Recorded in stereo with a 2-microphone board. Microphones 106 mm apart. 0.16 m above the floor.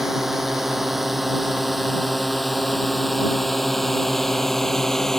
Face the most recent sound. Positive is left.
turn(degrees=5)  # may be behind; listen again after turning